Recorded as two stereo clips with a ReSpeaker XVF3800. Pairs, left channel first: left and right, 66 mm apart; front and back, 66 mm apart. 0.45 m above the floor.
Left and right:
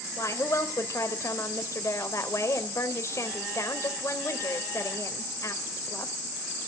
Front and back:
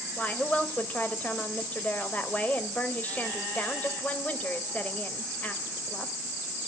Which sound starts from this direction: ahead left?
A woman speaking, at 0.2 s.